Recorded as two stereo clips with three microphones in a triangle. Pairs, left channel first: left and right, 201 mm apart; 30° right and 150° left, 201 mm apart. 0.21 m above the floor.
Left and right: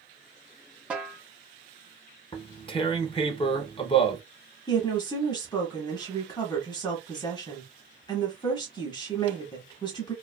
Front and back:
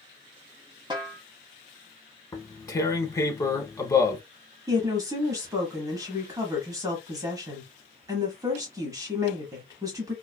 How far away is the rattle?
I don't hear a rattle.